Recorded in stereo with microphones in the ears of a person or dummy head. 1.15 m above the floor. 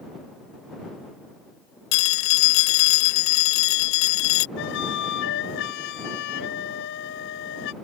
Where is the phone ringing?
70° left (ahead or behind).